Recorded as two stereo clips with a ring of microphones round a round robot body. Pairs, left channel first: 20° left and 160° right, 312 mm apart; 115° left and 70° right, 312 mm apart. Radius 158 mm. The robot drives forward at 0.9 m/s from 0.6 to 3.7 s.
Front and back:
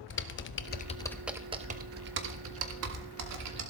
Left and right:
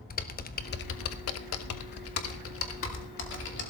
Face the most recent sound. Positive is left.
turn(degrees=165)